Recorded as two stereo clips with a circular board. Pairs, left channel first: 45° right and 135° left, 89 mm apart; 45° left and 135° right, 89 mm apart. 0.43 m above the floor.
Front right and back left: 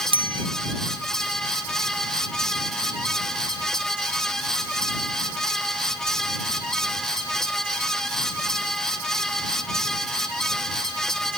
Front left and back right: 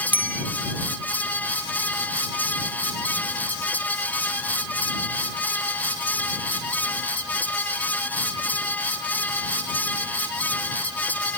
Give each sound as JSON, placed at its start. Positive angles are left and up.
{"t": 0.1, "sound": "a bicycle bell", "azimuth_deg": 150}